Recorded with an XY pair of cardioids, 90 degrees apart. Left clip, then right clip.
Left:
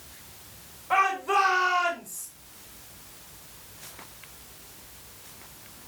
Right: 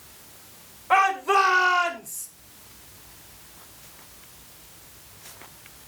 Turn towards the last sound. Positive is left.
turn(degrees=-40)